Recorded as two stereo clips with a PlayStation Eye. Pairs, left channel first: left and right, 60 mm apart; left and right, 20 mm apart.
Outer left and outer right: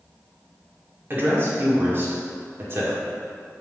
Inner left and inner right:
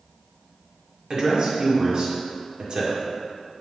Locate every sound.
1.1 s a woman speaking: 40° right (ahead or behind), 1.8 m